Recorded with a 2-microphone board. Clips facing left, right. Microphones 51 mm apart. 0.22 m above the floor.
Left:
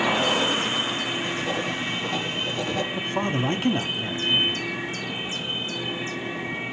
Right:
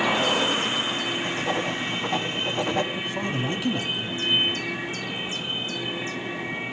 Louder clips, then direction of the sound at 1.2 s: Right 1 dB; 35° right (ahead or behind).